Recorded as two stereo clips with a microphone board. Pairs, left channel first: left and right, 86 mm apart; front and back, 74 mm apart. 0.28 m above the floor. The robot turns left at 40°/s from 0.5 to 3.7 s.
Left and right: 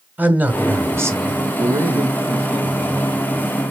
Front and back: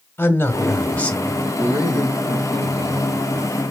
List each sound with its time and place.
0.2 s a man speaking: 35° right, 1.8 m; by 1.5 s 75° right, 1.8 m
1.6 s a man speaking: 115° right, 5 m; by 3.6 s 165° left, 5 m